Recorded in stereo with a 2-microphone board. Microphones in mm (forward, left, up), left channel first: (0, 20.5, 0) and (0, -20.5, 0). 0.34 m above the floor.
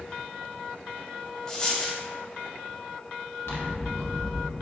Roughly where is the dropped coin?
Centre.